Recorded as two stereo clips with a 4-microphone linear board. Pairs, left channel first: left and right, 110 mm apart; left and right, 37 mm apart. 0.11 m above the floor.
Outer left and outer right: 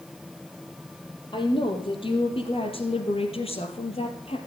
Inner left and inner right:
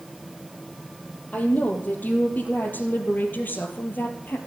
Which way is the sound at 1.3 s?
50° left (ahead or behind).